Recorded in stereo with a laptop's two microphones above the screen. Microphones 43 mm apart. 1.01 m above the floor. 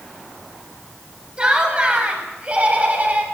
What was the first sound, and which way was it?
Laughter, 25° right (ahead or behind).